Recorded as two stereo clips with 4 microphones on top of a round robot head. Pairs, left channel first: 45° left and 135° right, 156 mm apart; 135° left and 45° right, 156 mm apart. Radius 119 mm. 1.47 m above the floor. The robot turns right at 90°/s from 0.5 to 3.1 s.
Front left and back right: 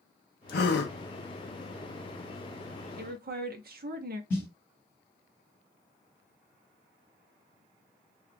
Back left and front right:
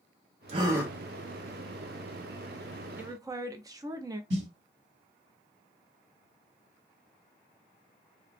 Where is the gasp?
10° left, 0.6 m; by 0.9 s 50° left, 0.6 m.